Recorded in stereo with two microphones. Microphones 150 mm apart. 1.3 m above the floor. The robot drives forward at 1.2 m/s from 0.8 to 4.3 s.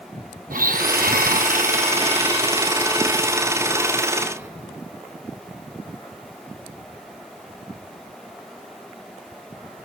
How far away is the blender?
About 1.3 m.